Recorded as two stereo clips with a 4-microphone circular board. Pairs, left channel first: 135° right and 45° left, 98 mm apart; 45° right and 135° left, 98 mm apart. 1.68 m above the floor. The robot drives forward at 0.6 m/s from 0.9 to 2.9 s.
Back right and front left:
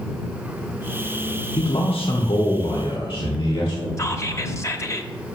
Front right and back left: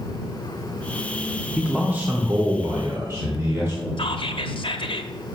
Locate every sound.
1.6 s a man speaking: 145° right, 0.6 m; by 3.9 s 165° right, 1.3 m
4.0 s whispering: 75° right, 0.7 m